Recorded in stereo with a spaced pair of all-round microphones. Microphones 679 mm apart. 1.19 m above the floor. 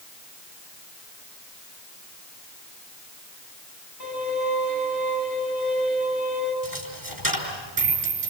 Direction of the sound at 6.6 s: 30° right (ahead or behind).